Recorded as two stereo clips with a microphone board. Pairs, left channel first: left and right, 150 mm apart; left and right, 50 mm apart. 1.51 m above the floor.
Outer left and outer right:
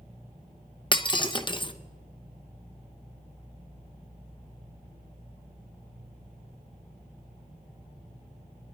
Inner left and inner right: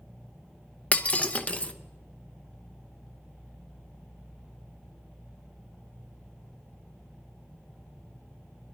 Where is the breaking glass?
30° left (ahead or behind), 0.7 m.